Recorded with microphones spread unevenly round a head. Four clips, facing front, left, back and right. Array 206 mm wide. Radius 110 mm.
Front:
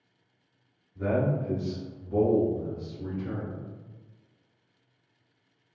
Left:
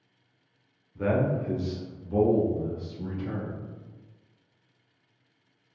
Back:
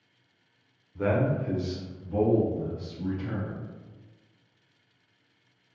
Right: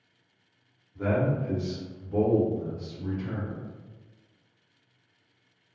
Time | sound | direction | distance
0.9 | a man speaking | straight behind | 0.6 m